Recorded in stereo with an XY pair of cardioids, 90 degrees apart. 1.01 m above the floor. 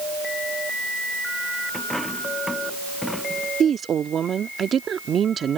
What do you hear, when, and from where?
1.7 s a dropped coin: 10° left
3.6 s a woman speaking: 55° right